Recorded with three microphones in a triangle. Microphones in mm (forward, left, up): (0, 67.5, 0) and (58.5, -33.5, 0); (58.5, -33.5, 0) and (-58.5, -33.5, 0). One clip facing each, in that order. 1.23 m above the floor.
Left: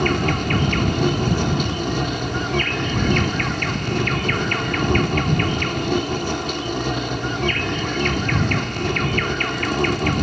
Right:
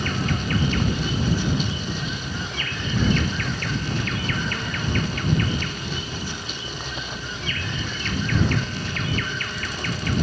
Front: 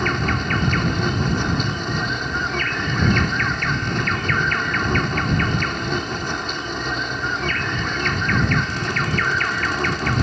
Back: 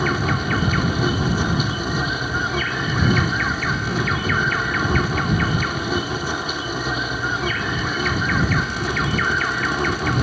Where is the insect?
95° left.